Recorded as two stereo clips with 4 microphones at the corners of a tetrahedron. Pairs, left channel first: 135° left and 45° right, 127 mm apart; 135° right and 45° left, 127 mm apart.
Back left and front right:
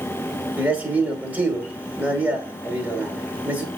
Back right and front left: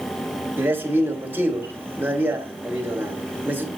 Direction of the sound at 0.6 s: 5° left.